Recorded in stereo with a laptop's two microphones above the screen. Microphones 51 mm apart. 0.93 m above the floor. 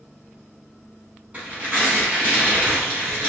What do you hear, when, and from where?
1.3 s tearing paper: 30° right (ahead or behind), 1.7 m